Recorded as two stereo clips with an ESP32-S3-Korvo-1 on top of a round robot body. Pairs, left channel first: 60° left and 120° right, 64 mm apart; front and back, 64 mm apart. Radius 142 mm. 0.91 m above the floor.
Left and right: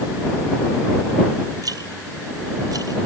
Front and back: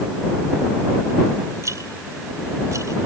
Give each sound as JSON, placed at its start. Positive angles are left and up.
{"t": 1.6, "sound": "a rattle", "azimuth_deg": -140}